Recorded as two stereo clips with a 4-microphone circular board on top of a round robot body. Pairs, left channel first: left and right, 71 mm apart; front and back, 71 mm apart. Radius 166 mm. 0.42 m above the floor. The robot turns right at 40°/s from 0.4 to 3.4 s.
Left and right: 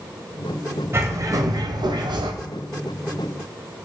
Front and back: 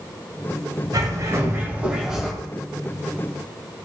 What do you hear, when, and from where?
0.9 s a bird: 145° right, 1.4 m; by 2.3 s 90° right, 1.4 m